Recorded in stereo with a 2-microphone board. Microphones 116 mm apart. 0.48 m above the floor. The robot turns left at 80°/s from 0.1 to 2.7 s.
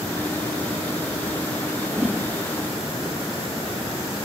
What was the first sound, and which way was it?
A whoosh, 155° right.